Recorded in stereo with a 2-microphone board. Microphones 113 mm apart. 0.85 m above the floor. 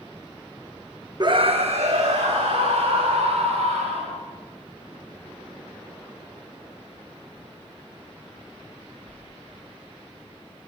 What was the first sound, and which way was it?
A scream, 40° right (ahead or behind).